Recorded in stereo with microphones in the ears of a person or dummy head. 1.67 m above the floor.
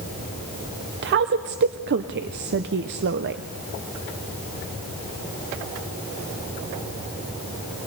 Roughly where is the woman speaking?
Right.